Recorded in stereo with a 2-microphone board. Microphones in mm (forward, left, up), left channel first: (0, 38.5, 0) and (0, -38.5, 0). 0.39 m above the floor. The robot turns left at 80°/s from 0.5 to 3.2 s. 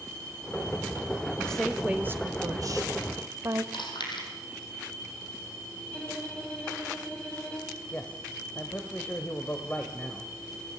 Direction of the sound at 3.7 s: 80° left.